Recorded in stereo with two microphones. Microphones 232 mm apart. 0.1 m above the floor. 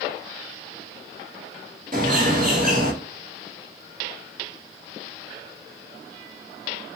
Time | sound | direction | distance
1.9 | a bird | 35° right (ahead or behind) | 1.4 m